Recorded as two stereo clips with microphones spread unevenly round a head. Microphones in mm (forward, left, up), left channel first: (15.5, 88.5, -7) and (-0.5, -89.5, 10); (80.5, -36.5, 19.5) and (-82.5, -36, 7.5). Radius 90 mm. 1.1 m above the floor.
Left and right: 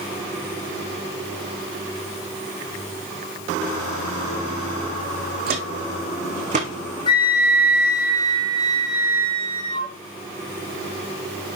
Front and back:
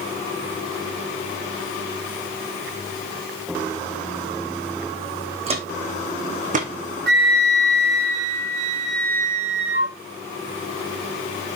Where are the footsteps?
130° right, 3.5 m; by 6.7 s 145° right, 3.5 m.